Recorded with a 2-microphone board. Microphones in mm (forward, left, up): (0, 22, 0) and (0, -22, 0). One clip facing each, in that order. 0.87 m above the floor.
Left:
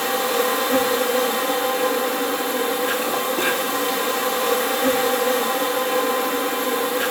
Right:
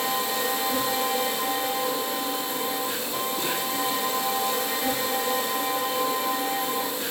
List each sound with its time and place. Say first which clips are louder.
0.0 s an insect: left 6 dB; 70° left (ahead or behind), 3 m